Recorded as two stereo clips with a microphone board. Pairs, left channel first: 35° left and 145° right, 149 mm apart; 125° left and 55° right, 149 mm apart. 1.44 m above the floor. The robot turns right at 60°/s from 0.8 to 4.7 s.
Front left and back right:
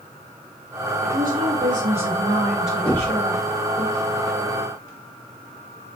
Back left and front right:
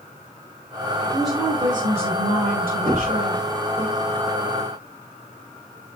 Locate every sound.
1.0 s a woman speaking: 155° right, 5.5 m; by 3.9 s 10° left, 5.5 m
2.9 s knocking: 50° right, 4 m; by 3.2 s 25° right, 4 m